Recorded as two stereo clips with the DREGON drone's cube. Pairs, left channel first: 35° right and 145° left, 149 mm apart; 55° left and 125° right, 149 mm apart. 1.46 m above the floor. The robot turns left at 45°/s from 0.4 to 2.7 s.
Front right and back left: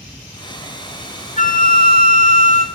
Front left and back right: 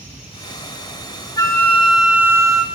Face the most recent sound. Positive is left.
turn(degrees=-70)